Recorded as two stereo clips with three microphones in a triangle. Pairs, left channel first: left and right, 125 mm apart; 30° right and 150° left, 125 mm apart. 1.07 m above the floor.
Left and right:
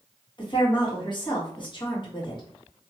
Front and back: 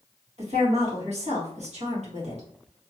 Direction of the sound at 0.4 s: 135° left.